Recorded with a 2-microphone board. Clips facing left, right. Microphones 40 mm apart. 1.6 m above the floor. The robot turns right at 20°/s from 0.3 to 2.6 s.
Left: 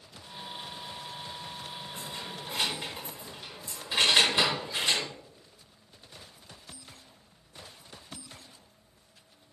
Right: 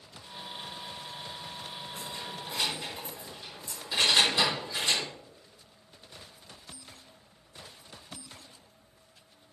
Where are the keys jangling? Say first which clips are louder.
Even; 15° left (ahead or behind), 5 m; by 5.0 s 25° left (ahead or behind), 5 m.